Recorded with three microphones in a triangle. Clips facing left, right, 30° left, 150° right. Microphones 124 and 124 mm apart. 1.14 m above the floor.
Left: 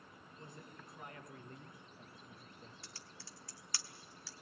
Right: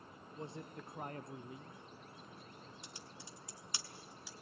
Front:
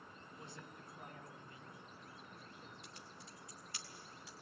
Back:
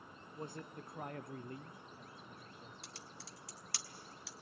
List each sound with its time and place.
0.3 s a man speaking: 100° right, 1.9 m; by 2.7 s 130° left, 2.5 m
2.8 s typing on a keyboard: 165° right, 1.3 m